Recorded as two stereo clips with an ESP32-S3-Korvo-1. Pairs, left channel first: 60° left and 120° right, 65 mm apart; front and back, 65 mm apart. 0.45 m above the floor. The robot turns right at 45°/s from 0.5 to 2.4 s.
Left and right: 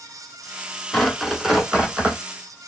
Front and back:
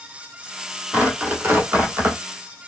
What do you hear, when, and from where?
0.9 s tearing paper: 140° left, 1.2 m; by 2.2 s 165° right, 1.2 m